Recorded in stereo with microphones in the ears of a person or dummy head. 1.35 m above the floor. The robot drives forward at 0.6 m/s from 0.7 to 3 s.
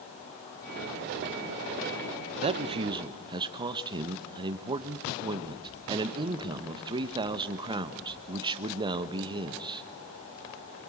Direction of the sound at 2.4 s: 35° right (ahead or behind).